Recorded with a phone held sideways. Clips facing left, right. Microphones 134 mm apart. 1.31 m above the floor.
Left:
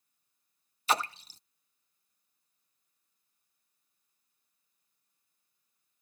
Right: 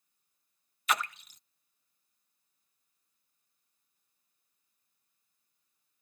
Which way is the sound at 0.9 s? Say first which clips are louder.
Left 2 dB; 35° left (ahead or behind).